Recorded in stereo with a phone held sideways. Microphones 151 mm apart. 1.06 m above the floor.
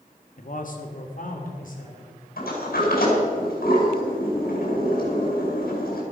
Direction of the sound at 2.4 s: 80° left.